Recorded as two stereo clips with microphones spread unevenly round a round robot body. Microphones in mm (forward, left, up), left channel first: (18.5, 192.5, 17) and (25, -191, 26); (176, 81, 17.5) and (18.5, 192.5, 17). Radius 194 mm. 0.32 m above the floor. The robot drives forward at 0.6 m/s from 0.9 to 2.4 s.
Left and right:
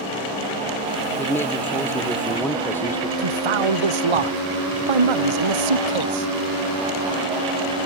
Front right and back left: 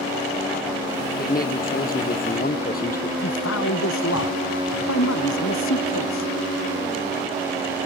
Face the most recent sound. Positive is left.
turn(degrees=-75)